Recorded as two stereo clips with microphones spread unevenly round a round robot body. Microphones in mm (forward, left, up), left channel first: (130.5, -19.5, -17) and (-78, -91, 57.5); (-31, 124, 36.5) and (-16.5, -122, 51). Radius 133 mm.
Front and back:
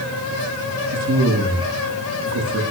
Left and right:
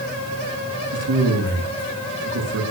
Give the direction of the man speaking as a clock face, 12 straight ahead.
4 o'clock.